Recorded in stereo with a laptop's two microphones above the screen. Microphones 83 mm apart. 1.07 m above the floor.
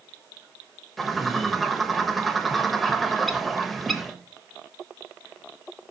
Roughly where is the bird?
Centre.